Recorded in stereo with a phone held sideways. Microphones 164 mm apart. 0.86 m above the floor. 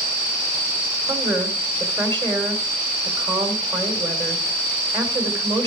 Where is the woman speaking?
25° right (ahead or behind), 2.5 m.